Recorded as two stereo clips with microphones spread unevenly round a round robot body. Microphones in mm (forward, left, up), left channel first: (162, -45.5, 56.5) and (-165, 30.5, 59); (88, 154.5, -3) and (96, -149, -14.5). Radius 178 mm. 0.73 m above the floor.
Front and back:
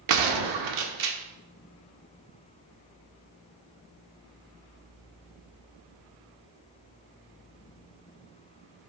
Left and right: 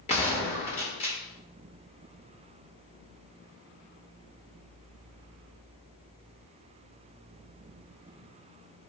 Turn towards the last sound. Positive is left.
turn(degrees=165)